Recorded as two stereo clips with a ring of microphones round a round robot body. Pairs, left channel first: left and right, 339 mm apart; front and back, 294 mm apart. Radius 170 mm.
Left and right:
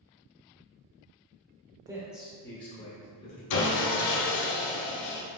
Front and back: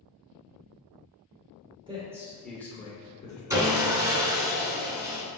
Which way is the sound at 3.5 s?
100° left.